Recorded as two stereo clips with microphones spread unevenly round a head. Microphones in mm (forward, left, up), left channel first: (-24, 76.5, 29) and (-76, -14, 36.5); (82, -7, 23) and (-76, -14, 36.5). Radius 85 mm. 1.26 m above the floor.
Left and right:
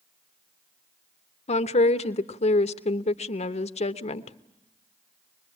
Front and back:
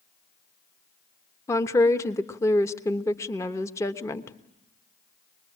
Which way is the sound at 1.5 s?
75° left.